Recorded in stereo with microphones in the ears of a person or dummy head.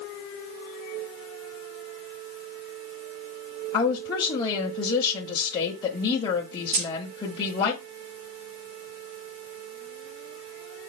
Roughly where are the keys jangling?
Right.